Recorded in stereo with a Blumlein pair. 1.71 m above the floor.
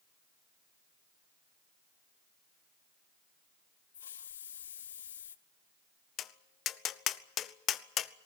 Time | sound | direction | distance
3.9 | a hiss | 65° left | 0.7 m
6.2 | tapping | 30° left | 0.6 m